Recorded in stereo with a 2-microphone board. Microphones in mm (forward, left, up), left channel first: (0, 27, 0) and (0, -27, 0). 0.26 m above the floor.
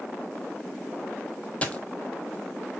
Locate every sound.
1.6 s a dropped coin: 25° left (ahead or behind), 0.8 m